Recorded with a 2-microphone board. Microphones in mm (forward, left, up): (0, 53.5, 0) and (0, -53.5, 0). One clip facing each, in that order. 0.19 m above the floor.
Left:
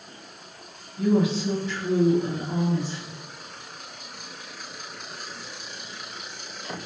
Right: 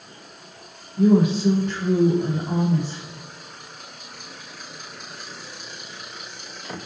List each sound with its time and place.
1.0 s a woman speaking: 55° right (ahead or behind), 6.5 m